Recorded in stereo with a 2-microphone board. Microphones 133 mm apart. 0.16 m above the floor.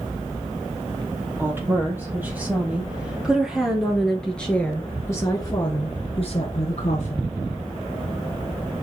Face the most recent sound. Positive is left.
turn(degrees=60)  # may be behind; listen again after turning